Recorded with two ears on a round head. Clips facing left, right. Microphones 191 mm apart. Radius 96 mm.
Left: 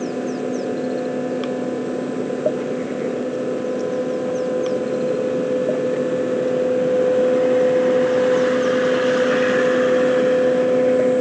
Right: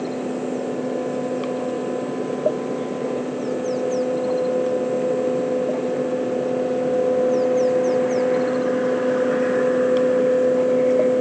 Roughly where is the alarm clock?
I don't hear an alarm clock.